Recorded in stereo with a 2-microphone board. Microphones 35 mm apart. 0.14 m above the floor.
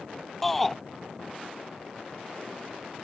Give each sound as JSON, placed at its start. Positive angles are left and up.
{"t": 0.4, "sound": "a shout", "side_deg": 5}